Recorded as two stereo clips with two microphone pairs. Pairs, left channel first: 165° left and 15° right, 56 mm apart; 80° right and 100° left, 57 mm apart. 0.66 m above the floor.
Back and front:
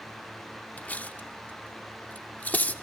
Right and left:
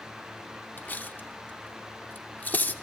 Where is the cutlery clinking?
140° right, 0.7 m.